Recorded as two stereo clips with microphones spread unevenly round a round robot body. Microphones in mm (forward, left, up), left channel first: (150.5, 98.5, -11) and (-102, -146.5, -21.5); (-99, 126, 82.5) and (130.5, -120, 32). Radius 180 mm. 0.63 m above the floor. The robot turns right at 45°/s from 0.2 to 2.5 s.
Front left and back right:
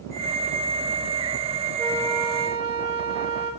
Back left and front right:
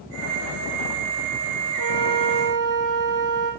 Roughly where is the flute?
Behind left.